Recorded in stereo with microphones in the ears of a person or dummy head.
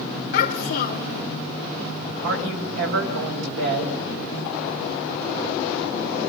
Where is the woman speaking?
65° right (ahead or behind), 7 m.